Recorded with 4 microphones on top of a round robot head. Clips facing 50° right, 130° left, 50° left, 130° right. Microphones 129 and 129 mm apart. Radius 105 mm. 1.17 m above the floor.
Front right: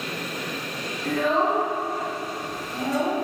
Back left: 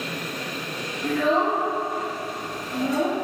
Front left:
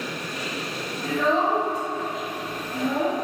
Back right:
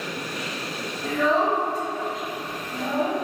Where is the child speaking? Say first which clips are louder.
Back left 1 dB, back right 1 dB; 140° left, 0.9 m.